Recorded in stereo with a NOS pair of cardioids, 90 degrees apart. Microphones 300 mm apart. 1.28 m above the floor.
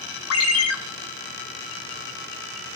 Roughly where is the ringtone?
Ahead left.